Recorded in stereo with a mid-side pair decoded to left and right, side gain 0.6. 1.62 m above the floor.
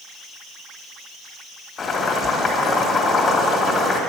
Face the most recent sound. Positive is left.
turn(degrees=35)